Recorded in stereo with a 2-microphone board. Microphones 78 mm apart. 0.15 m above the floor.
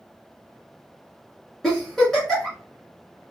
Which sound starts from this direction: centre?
A giggle, at 1.6 s.